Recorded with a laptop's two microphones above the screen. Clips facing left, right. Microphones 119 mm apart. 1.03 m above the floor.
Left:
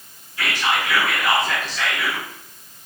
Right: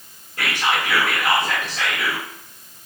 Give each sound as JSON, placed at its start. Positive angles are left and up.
{"t": 0.4, "sound": "whispering", "side_deg": -55, "distance_m": 1.1}